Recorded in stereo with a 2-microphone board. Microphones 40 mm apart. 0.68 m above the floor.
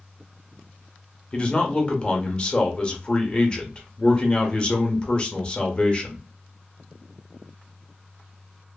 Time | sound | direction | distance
1.3 | a man speaking | 20° left (ahead or behind) | 0.7 m